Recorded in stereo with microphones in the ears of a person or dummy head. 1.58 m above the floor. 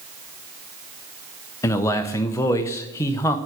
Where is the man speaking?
20° left (ahead or behind), 0.7 m.